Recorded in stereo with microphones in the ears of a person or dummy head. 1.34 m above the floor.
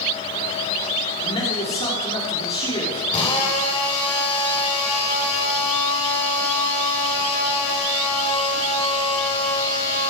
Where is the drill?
30° left (ahead or behind), 4 m.